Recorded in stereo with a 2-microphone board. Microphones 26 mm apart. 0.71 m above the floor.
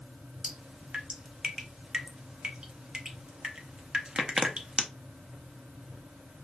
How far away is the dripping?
About 0.7 m.